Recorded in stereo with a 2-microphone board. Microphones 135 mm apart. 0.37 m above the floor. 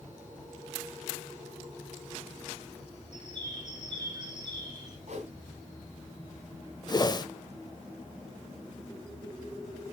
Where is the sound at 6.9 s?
30° left (ahead or behind), 0.7 m.